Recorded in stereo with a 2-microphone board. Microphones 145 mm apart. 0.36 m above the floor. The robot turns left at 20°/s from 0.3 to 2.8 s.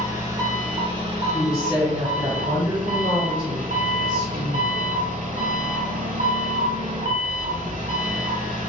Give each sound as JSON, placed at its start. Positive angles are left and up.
{"t": 0.0, "sound": "an engine running", "azimuth_deg": -25, "distance_m": 0.7}
{"t": 1.3, "sound": "a woman speaking", "side_deg": -40, "distance_m": 1.7}